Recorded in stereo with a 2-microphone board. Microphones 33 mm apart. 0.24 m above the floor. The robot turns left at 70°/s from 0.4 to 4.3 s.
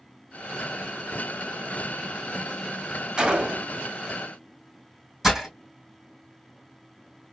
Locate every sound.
3.2 s a gunshot: 60° right, 0.7 m; by 3.8 s 100° right, 0.7 m
5.2 s breaking glass: 5° right (ahead or behind), 2.5 m